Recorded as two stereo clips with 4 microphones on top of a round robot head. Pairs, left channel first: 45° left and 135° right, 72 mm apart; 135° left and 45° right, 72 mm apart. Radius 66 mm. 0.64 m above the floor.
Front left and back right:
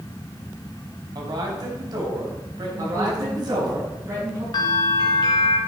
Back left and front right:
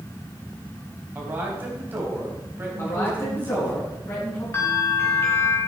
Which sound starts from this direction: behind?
A man speaking, at 2.8 s.